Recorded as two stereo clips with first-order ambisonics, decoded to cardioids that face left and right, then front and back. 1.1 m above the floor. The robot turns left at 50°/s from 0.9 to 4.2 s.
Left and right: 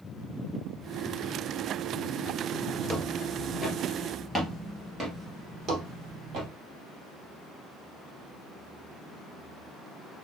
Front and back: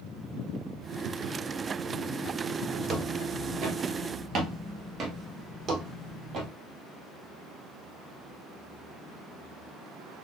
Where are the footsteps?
170° right, 1.3 m; by 6.5 s 135° right, 1.9 m.